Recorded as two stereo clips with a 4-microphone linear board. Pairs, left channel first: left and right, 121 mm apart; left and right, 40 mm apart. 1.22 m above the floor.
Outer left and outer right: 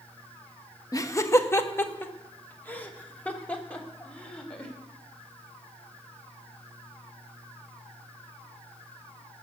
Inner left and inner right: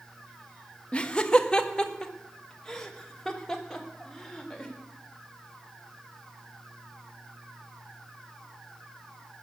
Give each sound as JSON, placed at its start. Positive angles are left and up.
{"t": 0.9, "sound": "laughter", "side_deg": 30, "distance_m": 1.1}